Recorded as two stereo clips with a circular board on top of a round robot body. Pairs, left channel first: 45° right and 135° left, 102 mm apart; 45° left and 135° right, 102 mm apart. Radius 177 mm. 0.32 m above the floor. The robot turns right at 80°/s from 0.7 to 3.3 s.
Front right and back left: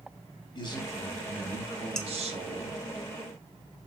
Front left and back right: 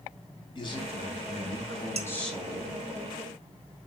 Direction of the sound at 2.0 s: 130° right.